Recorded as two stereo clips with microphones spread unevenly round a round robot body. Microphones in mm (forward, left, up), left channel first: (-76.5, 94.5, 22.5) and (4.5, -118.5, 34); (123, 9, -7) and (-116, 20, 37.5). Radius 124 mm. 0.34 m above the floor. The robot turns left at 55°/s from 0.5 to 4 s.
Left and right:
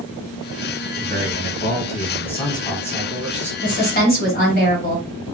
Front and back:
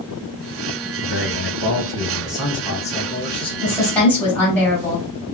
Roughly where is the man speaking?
Behind left.